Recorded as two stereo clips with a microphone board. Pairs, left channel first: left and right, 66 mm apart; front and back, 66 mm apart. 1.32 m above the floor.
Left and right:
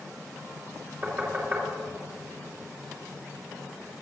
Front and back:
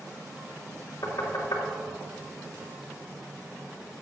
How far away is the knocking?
About 3 m.